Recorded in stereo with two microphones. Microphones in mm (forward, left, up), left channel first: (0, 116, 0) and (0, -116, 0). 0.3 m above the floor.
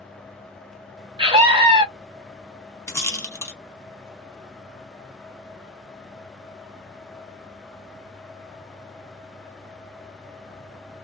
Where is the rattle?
10° left (ahead or behind), 1.0 m.